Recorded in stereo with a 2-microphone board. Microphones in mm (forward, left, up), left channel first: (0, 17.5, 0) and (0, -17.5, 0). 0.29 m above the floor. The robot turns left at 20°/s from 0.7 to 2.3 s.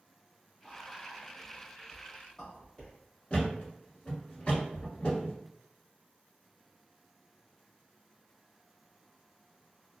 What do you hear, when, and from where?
0.6 s whispering: centre (ahead or behind), 1.4 m; by 2.9 s 15° left (ahead or behind), 1.4 m
3.3 s a thud: 30° left (ahead or behind), 1.3 m